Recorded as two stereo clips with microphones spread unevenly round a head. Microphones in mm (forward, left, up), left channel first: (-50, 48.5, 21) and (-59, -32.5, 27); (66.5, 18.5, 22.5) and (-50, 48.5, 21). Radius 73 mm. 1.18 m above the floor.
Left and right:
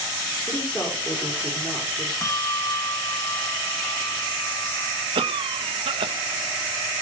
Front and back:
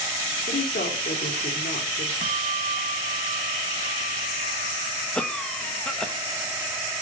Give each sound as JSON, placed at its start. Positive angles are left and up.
{"t": 0.5, "sound": "a woman speaking", "azimuth_deg": 5, "distance_m": 4.0}
{"t": 2.2, "sound": "a bell", "azimuth_deg": 135, "distance_m": 0.7}
{"t": 5.2, "sound": "a cough", "azimuth_deg": -100, "distance_m": 1.6}